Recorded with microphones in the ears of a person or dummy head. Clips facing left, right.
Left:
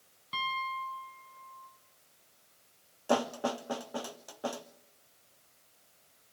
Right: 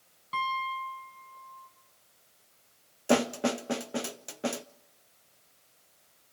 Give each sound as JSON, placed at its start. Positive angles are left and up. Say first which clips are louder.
{"t": 0.3, "sound": "a piano", "louder": "right 4 dB", "side_deg": 15, "distance_m": 4.0}
{"t": 3.1, "sound": "a snare drum", "louder": "right 4 dB", "side_deg": -25, "distance_m": 0.6}